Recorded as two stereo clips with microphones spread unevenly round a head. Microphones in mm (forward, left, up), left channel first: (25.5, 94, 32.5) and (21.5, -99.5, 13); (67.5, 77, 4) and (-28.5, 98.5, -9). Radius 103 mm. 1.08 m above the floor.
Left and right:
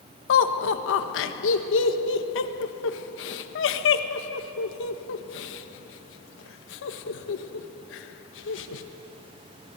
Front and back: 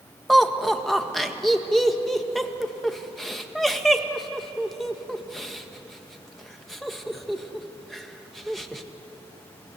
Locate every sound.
0.3 s laughter: 80° left, 1.6 m